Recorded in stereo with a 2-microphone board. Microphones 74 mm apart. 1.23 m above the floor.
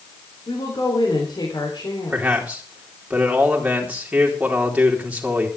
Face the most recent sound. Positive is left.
turn(degrees=-15)  # may be behind; listen again after turning